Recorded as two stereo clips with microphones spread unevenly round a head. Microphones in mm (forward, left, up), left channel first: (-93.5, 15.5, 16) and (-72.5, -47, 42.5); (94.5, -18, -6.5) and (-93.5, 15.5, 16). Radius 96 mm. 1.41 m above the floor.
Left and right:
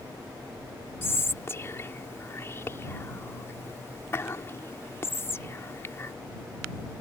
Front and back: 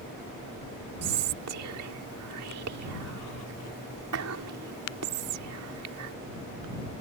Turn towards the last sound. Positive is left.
turn(degrees=165)